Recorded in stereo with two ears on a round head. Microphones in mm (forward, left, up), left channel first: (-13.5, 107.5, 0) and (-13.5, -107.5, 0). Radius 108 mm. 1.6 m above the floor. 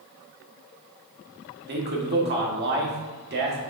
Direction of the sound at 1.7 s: 45° right (ahead or behind).